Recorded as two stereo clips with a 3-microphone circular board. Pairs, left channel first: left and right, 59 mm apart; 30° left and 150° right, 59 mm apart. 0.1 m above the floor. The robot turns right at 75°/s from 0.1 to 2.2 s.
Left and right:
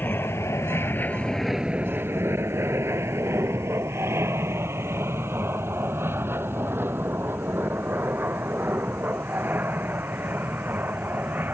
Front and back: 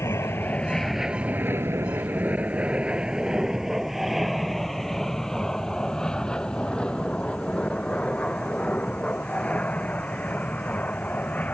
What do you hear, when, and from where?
0.0 s an aircraft: 45° left; by 11.5 s 35° right